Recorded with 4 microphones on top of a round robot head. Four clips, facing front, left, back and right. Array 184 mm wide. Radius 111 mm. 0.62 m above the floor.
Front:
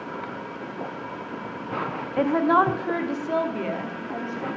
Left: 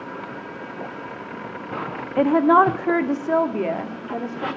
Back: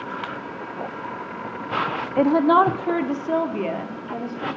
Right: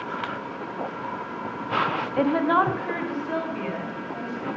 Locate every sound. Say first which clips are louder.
2.2 s a woman speaking: left 6 dB, back 3 dB; 140° left, 0.6 m; by 4.5 s 105° left, 1.6 m